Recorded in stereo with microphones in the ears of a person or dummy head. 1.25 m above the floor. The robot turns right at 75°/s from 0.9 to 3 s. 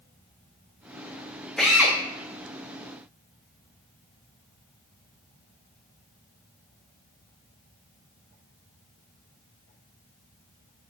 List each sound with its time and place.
1.6 s a drill: 5° left (ahead or behind), 0.8 m; by 2.0 s 15° right (ahead or behind), 0.8 m